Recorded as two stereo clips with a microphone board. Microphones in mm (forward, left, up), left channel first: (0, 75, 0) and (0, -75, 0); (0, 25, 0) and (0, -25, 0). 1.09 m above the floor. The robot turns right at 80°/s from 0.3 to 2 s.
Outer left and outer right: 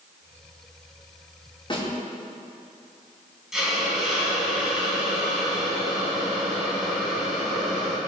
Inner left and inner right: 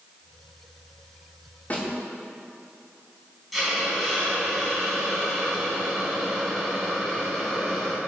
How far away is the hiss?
About 3 m.